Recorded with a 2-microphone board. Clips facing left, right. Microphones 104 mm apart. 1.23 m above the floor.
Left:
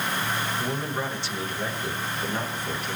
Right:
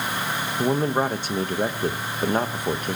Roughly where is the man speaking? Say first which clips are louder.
Right 7 dB; right.